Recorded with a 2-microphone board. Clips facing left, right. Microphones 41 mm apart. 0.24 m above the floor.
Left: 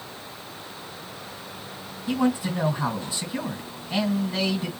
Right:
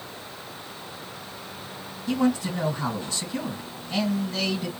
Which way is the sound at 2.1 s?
15° left (ahead or behind).